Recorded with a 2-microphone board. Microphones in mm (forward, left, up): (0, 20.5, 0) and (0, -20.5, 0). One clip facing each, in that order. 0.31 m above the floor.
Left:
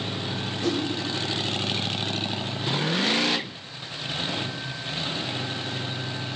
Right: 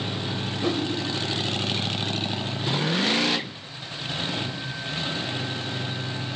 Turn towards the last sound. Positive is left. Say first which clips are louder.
# even
turn(degrees=-25)  # may be behind; listen again after turning